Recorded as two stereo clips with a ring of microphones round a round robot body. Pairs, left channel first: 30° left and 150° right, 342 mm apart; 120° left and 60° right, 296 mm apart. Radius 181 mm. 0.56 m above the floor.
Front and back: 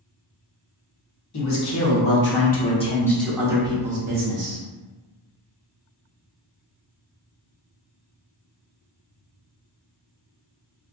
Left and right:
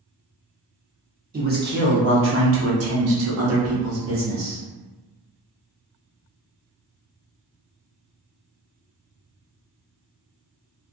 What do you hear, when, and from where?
1.3 s a man speaking: straight ahead, 1.3 m; by 4.6 s 105° right, 1.2 m